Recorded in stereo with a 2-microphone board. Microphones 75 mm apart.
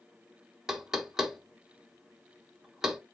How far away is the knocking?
About 0.8 m.